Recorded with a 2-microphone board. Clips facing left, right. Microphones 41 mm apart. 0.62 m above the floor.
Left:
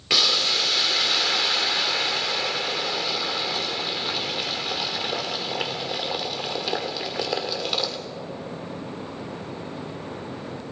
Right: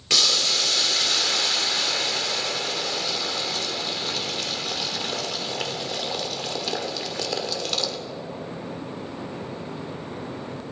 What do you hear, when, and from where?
0.1 s boiling: 15° left (ahead or behind), 2.0 m